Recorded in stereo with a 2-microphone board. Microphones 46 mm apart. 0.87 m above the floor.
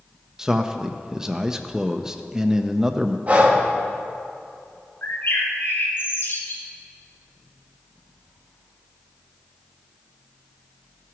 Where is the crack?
No crack in this recording.